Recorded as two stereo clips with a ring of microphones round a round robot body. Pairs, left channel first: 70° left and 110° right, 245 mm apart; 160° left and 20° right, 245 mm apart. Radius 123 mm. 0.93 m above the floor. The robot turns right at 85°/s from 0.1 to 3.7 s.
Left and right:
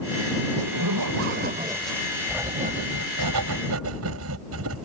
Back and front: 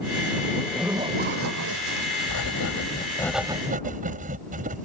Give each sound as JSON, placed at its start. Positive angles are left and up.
{"t": 0.6, "sound": "a zipper", "azimuth_deg": -135}
{"t": 2.3, "sound": "writing", "azimuth_deg": 160}